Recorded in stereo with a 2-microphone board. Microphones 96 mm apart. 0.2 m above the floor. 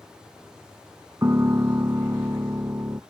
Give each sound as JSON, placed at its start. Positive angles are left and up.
{"t": 1.2, "sound": "a piano", "side_deg": -30}